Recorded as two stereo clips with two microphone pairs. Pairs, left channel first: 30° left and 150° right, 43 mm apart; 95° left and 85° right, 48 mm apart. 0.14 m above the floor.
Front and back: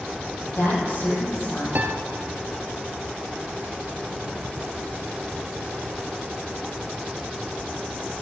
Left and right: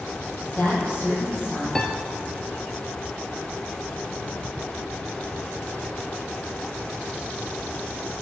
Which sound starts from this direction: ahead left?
A woman speaking, at 0.4 s.